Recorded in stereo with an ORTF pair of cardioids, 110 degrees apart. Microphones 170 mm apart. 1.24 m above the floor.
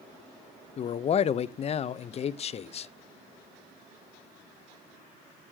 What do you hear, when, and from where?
0.8 s a man speaking: 40° left, 0.6 m